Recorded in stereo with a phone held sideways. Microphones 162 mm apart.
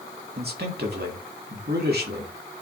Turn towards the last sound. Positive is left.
turn(degrees=-85)